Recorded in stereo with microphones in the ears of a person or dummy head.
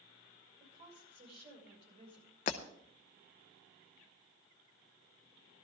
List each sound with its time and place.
0.6 s a woman speaking: 30° right (ahead or behind), 6 m
2.5 s breaking glass: 40° left (ahead or behind), 0.9 m